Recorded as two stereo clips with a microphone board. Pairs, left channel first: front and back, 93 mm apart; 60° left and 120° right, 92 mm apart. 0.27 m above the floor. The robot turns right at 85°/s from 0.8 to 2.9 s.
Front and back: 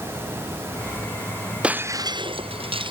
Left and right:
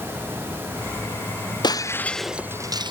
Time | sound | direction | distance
1.6 | breaking glass | 100° left | ?